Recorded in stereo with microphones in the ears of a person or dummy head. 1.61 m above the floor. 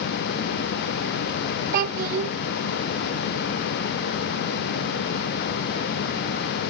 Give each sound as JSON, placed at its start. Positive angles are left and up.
{"t": 1.7, "sound": "a child speaking", "side_deg": -50, "distance_m": 0.7}